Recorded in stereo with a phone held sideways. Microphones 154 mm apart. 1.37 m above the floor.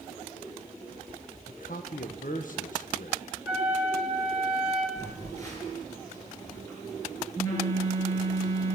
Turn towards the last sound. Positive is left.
turn(degrees=20)  # may be behind; listen again after turning